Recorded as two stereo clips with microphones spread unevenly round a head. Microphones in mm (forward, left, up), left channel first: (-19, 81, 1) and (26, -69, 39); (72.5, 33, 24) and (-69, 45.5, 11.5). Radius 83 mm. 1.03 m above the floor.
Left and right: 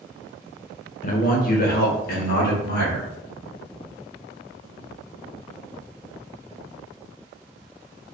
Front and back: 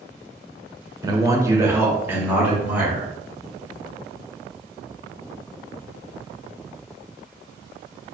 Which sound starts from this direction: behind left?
A man speaking, at 1.0 s.